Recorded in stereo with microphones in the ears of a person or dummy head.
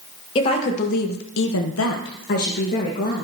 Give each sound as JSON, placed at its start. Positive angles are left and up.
{"t": 0.3, "sound": "a woman speaking", "side_deg": 30, "distance_m": 1.5}